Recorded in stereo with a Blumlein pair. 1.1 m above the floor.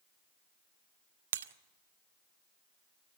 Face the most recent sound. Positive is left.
turn(degrees=-65)